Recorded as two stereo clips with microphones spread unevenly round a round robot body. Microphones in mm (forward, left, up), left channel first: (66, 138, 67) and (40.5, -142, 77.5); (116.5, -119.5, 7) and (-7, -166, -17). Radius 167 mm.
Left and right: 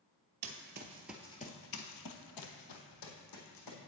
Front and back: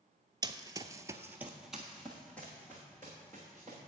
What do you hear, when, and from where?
0.4 s running footsteps: 95° right, 0.9 m; by 3.8 s 95° left, 2.5 m